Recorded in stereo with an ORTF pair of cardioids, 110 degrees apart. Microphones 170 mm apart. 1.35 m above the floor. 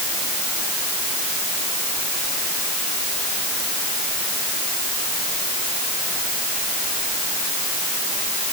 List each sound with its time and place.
Only background noise.